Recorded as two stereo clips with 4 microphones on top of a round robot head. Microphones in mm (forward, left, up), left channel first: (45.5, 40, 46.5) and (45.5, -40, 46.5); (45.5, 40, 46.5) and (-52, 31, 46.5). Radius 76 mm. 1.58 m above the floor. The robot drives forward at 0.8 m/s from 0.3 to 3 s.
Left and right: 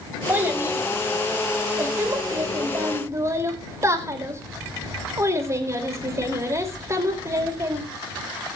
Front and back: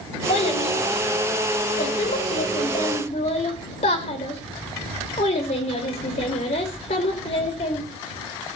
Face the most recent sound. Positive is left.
turn(degrees=-35)